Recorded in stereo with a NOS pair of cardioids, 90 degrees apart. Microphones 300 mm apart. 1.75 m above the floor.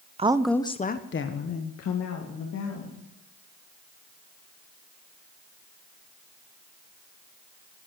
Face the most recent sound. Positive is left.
turn(degrees=70)